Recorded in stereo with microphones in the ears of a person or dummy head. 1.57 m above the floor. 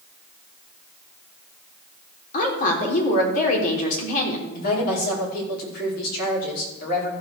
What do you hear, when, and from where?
2.3 s a woman speaking: 50° left (ahead or behind), 3.5 m
4.5 s a woman speaking: 55° left (ahead or behind), 5 m